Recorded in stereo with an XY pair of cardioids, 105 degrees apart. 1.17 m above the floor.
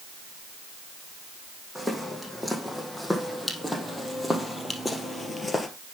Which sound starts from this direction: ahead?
Footsteps, at 1.8 s.